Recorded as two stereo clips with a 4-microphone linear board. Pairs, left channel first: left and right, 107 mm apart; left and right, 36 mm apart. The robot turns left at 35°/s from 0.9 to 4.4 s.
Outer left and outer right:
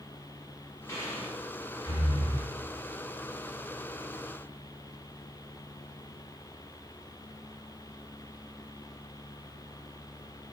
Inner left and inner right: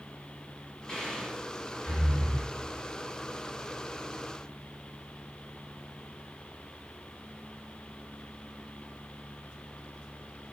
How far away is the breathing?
About 1.2 m.